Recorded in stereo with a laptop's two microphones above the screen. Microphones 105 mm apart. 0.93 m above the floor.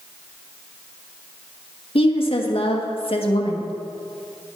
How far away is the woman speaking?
About 1.2 m.